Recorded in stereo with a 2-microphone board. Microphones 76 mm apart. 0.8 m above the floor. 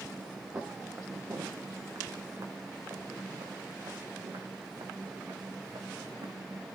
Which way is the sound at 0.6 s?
30° right (ahead or behind).